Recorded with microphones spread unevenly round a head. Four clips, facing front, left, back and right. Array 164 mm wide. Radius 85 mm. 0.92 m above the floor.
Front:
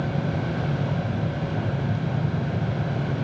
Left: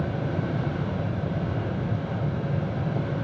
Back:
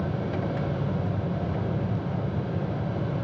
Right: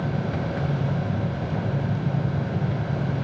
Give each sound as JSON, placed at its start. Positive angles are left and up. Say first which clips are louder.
{"t": 0.0, "sound": "a fan", "louder": "right 1 dB, front 2 dB", "azimuth_deg": -45, "distance_m": 7.5}